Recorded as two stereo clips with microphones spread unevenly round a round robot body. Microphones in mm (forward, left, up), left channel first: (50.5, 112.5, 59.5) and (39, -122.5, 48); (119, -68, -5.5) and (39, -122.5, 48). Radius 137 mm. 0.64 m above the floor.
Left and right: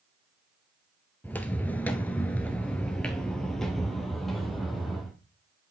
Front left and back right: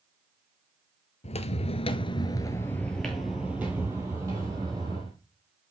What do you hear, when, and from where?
1.2 s footsteps: 10° left, 0.8 m; by 5.1 s 175° left, 1.6 m